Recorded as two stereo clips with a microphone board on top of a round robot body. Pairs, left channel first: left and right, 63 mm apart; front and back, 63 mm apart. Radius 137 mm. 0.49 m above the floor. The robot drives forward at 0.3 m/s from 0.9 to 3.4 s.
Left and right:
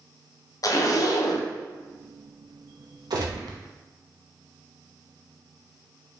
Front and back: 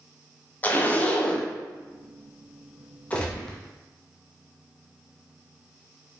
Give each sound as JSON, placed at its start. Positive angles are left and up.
{"t": 0.6, "sound": "a zipper", "azimuth_deg": 65, "distance_m": 0.6}
{"t": 3.1, "sound": "a gunshot", "azimuth_deg": -70, "distance_m": 0.5}